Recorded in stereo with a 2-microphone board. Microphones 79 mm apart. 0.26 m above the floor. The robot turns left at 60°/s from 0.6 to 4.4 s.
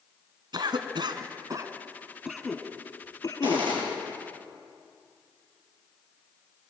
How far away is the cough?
About 2.5 m.